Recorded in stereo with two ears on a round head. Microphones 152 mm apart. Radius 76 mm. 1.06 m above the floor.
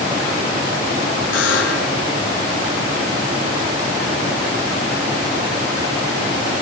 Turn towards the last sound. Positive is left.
turn(degrees=85)